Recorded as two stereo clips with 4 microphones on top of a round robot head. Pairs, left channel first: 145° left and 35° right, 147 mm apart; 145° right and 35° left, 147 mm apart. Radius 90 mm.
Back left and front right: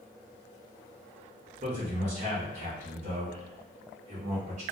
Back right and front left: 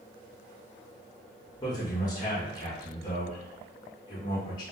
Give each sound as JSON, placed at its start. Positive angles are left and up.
{"t": 1.6, "sound": "a man speaking", "azimuth_deg": -80, "distance_m": 0.7}